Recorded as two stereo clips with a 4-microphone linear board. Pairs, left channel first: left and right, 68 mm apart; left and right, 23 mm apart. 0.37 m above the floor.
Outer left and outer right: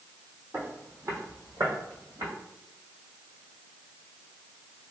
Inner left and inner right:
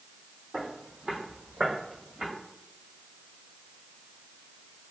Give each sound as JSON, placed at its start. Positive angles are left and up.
{"t": 0.5, "sound": "footsteps", "side_deg": -30, "distance_m": 1.0}